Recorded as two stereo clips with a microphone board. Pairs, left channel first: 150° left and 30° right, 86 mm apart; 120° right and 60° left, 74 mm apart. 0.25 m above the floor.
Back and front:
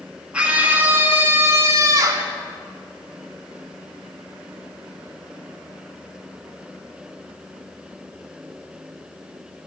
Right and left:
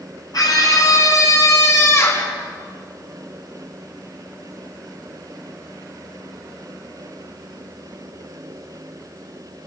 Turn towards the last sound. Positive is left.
turn(degrees=-70)